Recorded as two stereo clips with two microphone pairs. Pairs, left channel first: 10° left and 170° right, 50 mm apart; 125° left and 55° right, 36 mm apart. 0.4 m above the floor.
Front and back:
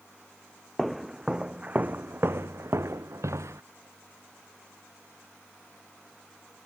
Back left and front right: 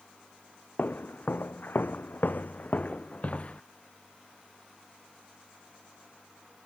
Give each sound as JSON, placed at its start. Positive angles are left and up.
{"t": 0.8, "sound": "footsteps", "azimuth_deg": 100}